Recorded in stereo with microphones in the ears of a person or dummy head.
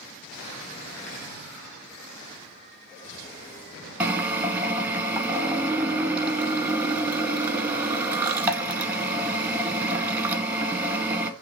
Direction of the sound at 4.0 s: 5° right (ahead or behind).